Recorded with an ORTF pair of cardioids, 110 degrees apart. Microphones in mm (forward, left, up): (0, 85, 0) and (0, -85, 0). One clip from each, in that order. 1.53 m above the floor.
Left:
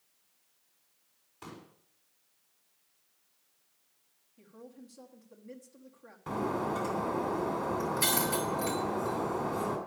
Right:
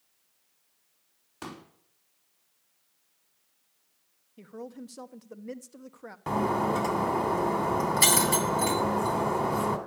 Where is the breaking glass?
45° right, 3 m.